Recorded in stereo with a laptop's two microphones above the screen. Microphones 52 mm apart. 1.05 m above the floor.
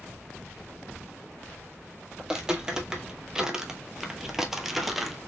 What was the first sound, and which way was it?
Footsteps, 15° right (ahead or behind).